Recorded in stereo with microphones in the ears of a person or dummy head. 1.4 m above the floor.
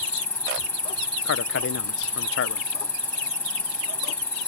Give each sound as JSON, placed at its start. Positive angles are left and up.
{"t": 0.0, "sound": "an insect", "side_deg": 15}
{"t": 1.2, "sound": "a man speaking", "side_deg": 65}